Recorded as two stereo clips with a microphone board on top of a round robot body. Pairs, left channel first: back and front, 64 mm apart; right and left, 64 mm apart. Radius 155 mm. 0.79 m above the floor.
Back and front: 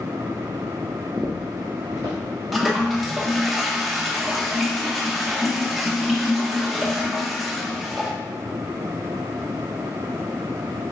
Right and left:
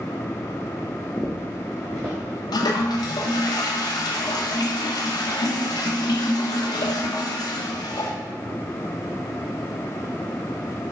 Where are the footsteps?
55° right, 0.7 m; by 3.5 s 55° left, 2.5 m.